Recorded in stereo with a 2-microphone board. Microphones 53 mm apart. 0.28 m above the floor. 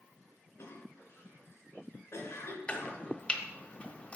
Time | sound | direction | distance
0.6 | a cough | 55° left (ahead or behind) | 3 m
2.7 | chopping | 25° left (ahead or behind) | 1.1 m